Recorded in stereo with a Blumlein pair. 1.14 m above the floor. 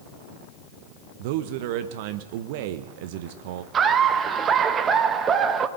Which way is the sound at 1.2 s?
50° right.